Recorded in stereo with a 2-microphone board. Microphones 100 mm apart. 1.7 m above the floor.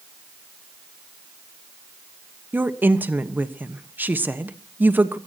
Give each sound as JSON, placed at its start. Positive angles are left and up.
{"t": 2.5, "sound": "a woman speaking", "side_deg": -20, "distance_m": 1.1}